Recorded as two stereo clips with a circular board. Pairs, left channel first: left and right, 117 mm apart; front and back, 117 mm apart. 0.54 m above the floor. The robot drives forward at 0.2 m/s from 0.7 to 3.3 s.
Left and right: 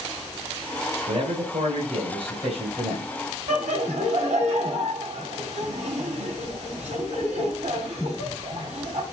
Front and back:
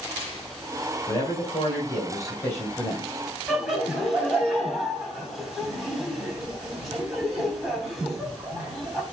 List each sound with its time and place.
1.1 s a man speaking: 60° right, 3 m; by 3.1 s 70° right, 2.5 m
3.5 s laughter: 95° right, 3.5 m